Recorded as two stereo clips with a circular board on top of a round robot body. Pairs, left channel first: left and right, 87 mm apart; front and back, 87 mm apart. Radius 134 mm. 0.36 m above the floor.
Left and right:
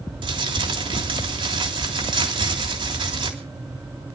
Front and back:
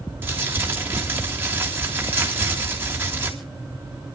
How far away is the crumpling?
About 3.5 m.